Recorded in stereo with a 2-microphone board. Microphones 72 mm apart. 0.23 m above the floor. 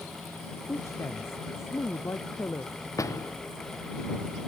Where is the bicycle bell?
No bicycle bell in this recording.